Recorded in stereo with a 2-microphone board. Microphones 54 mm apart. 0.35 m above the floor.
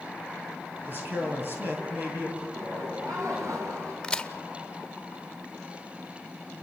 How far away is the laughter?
About 6.5 m.